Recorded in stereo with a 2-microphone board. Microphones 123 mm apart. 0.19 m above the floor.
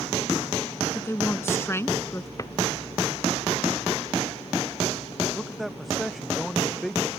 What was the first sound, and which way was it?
A woman speaking, 20° left (ahead or behind).